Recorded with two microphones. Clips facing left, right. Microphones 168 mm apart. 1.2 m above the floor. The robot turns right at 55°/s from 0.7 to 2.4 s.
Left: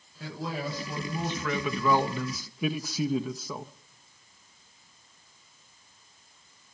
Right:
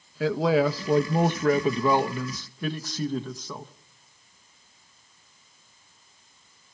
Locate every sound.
0.2 s a man speaking: 85° right, 1.0 m; by 3.7 s 5° left, 1.0 m